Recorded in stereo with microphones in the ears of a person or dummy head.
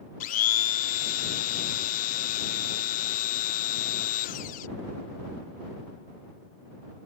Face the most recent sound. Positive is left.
turn(degrees=40)  # may be behind; listen again after turning